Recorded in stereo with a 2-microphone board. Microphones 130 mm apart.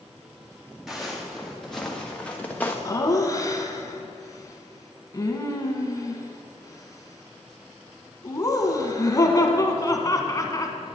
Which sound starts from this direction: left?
Laughter, at 2.9 s.